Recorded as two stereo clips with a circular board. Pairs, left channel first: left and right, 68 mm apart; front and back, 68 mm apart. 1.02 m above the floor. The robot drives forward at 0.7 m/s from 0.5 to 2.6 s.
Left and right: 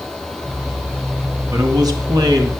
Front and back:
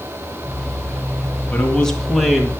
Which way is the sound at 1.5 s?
70° right.